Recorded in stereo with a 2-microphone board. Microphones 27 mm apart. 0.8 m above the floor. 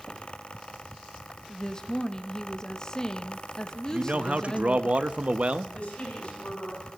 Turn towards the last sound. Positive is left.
turn(degrees=45)  # may be behind; listen again after turning